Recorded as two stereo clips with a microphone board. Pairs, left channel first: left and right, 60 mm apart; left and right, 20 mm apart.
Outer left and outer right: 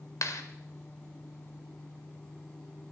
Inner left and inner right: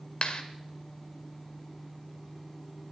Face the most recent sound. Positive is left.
turn(degrees=65)  # may be behind; listen again after turning